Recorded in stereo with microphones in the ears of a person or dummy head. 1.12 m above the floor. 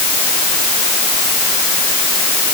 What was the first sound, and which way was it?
Only background noise.